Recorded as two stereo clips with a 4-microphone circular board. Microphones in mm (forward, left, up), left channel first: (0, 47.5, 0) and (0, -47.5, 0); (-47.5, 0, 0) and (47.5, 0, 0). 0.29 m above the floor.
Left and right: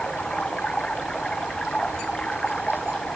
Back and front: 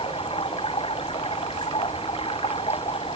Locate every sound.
0.0 s running water: 170° left